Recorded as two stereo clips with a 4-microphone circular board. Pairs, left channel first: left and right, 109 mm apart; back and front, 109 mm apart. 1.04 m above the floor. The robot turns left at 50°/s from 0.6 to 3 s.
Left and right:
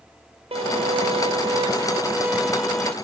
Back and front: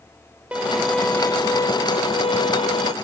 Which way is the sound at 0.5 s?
80° right.